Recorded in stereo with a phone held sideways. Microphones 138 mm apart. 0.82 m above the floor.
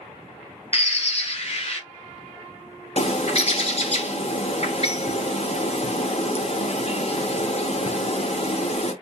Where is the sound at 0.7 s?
50° left (ahead or behind), 0.7 m.